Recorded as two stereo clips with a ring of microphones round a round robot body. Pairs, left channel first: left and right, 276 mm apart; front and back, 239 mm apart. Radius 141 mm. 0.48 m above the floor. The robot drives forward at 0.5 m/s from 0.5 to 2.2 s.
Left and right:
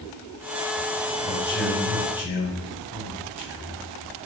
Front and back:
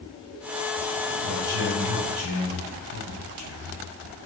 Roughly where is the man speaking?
Behind.